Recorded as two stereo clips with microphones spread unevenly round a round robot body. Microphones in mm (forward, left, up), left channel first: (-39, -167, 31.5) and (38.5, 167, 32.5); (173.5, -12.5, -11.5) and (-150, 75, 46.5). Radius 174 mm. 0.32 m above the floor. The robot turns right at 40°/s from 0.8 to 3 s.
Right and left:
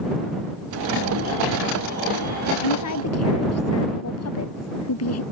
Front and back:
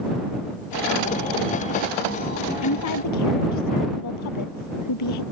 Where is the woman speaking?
70° right; by 5.2 s 55° right.